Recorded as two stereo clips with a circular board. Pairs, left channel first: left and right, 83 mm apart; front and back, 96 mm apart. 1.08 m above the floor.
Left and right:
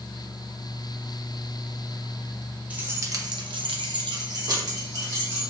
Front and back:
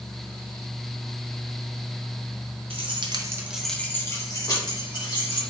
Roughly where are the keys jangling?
Behind.